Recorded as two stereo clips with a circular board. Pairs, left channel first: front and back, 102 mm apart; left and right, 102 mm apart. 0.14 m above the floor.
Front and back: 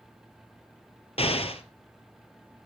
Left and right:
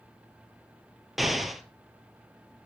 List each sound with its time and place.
1.2 s an explosion: straight ahead, 1.3 m